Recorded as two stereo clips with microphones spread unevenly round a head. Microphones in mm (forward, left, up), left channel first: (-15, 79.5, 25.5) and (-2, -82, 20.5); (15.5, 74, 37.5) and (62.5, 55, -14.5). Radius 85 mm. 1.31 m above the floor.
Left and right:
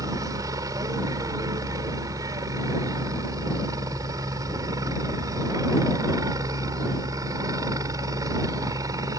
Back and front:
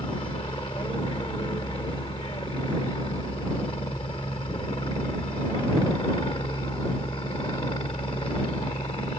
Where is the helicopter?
155° right.